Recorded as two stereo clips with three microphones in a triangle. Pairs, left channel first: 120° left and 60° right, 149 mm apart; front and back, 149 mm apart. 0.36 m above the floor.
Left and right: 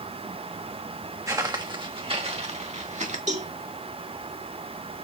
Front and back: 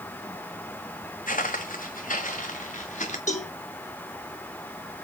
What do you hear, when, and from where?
1.3 s footsteps: 5° left, 1.1 m; by 3.2 s 30° right, 1.9 m
3.3 s a cowbell: 30° right, 2 m